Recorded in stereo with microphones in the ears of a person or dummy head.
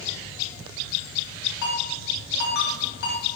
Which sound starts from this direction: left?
A ringtone, at 1.6 s.